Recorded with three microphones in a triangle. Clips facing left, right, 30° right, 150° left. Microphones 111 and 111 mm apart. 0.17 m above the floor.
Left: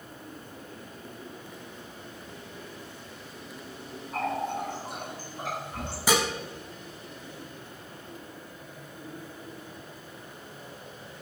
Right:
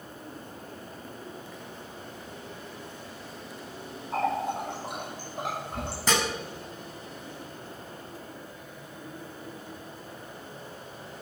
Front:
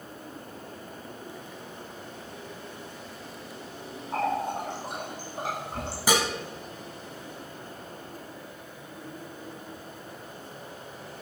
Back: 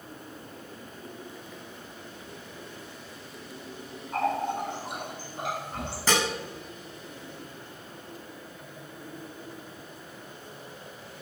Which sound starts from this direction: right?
A running tap, at 4.1 s.